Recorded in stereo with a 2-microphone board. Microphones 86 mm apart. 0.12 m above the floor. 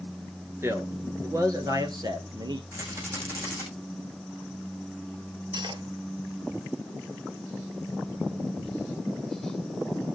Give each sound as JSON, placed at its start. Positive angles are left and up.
{"t": 0.6, "sound": "a man speaking", "side_deg": -30, "distance_m": 1.6}
{"t": 2.7, "sound": "a rattle", "side_deg": -35, "distance_m": 7.0}
{"t": 5.5, "sound": "cutlery clinking", "side_deg": -60, "distance_m": 1.5}